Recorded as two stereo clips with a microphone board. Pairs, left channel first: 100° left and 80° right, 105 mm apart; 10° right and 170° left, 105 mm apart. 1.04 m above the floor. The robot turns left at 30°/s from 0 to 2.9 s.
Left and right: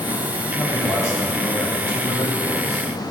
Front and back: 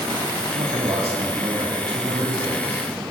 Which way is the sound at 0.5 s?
175° left.